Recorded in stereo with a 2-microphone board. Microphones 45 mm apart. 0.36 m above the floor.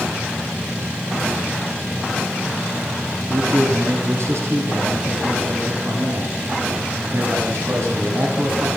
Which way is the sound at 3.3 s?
70° right (ahead or behind).